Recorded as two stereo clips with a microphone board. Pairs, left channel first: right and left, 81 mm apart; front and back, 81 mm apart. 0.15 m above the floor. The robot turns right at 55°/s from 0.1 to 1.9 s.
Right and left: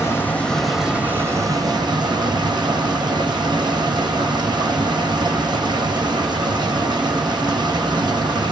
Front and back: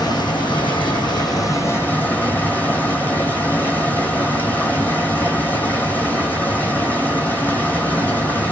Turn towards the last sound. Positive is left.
turn(degrees=70)